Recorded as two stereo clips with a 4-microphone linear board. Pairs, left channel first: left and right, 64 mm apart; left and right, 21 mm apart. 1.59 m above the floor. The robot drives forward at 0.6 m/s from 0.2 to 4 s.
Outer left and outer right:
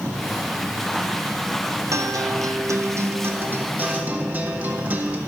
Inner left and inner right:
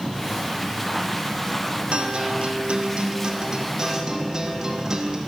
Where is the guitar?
55° right (ahead or behind), 0.6 m; by 5.2 s 25° right (ahead or behind), 1.2 m.